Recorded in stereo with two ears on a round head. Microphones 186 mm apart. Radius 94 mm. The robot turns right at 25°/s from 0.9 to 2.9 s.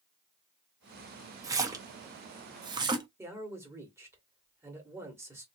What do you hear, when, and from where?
1.4 s a splash: 15° right (ahead or behind), 0.6 m; by 3.1 s 20° right (ahead or behind), 0.6 m
3.2 s a man speaking: 15° right (ahead or behind), 1.6 m